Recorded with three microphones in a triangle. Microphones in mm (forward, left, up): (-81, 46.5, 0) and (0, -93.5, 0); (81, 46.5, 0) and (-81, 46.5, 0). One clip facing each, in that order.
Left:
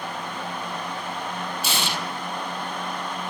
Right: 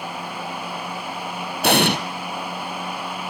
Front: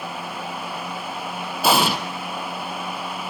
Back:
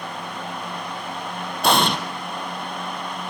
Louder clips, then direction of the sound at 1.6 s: Right 14 dB, even; 85° right.